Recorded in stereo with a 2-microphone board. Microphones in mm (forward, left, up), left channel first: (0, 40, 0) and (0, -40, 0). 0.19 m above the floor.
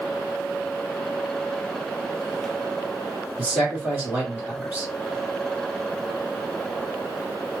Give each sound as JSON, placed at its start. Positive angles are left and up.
{"t": 3.4, "sound": "a man speaking", "side_deg": -20, "distance_m": 1.7}